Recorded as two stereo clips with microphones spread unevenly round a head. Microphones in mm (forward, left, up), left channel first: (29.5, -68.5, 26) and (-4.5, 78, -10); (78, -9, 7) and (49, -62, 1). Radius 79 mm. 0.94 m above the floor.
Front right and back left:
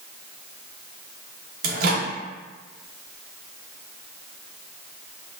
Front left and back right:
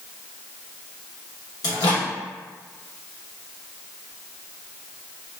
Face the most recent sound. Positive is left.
turn(degrees=100)